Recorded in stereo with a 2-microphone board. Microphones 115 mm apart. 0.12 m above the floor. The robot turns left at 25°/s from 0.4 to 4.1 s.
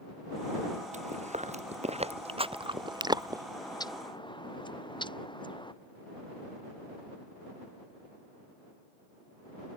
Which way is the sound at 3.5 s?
30° left (ahead or behind).